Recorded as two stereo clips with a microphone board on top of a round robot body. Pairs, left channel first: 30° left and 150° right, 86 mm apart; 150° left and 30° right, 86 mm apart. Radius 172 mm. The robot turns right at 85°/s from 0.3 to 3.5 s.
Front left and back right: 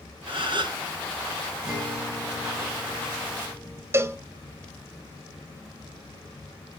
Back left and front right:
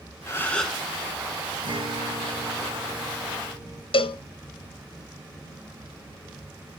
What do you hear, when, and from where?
0.3 s a gasp: 155° right, 1.6 m; by 0.8 s 110° right, 1.6 m
1.6 s a guitar: 70° right, 4 m; by 3.8 s 90° left, 4 m
3.9 s a cowbell: 150° left, 0.7 m